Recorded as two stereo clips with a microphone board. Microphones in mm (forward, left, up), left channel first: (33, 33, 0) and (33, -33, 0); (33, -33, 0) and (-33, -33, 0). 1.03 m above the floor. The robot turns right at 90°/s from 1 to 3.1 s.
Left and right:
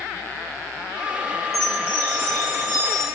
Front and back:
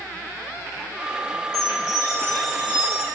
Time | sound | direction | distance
1.5 | a chime | straight ahead | 4.5 m